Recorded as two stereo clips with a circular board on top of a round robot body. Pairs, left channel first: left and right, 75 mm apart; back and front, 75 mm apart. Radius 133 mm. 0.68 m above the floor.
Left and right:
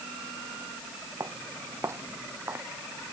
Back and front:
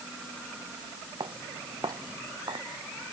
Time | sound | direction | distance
1.2 | footsteps | 40° right | ?